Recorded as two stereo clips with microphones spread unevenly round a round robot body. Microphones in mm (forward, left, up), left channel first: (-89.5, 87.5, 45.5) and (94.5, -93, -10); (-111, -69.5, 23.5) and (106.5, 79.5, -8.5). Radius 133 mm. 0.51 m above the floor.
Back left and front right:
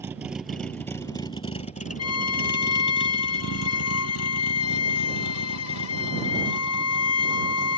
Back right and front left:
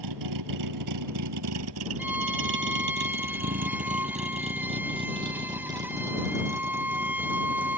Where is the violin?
120° left.